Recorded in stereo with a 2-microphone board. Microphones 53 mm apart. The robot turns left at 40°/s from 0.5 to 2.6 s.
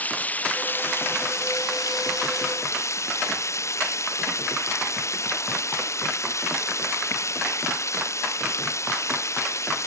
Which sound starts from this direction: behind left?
Running water, at 0.0 s.